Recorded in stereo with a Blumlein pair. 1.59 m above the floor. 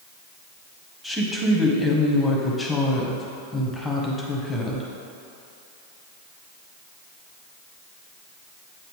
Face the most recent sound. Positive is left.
turn(degrees=5)